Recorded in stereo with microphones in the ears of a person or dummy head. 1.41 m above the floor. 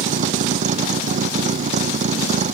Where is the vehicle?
40° right (ahead or behind).